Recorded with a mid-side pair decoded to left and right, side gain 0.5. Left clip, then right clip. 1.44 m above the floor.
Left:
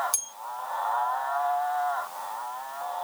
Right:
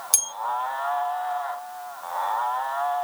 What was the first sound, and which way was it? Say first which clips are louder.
A bell: right 7 dB; 45° right.